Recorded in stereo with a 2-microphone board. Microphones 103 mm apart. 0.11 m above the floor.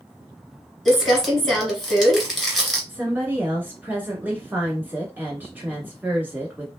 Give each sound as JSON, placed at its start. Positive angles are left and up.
{"t": 0.8, "sound": "crumpling", "side_deg": 5, "distance_m": 1.3}
{"t": 2.9, "sound": "a woman speaking", "side_deg": -20, "distance_m": 1.2}